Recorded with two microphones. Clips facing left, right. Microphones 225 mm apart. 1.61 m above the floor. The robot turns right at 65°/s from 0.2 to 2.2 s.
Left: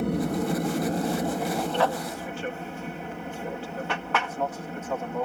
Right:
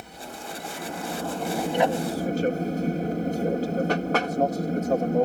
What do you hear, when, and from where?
0.0 s an aircraft: 95° left; by 5.2 s 135° right